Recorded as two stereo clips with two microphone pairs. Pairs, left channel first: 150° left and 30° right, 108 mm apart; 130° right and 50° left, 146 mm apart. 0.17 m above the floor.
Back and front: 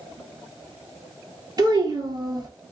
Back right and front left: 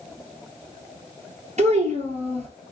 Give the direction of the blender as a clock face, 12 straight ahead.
No blender in this recording.